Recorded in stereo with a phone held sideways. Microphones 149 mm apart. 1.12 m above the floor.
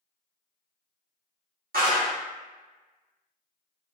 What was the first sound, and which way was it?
A clap, 75° right (ahead or behind).